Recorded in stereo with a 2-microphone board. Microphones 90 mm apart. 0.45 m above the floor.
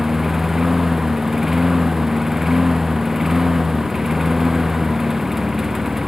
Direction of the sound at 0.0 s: 5° right (ahead or behind).